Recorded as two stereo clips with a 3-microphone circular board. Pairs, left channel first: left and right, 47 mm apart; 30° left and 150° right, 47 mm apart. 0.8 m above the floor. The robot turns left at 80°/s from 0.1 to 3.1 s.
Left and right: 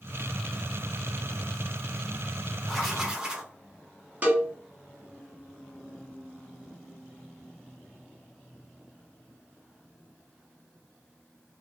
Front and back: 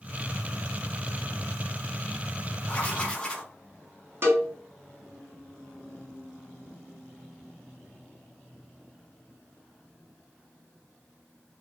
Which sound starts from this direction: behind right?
A cowbell, at 4.2 s.